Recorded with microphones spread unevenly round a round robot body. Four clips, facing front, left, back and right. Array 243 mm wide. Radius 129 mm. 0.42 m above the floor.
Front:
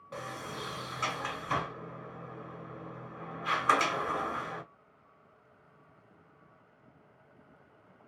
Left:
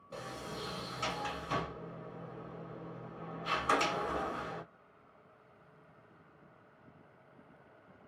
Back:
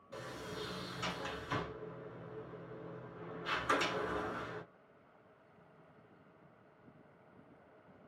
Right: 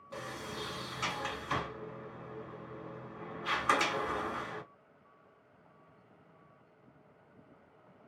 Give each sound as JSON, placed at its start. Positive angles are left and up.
{"t": 0.1, "sound": "a sliding door", "azimuth_deg": -15, "distance_m": 1.9}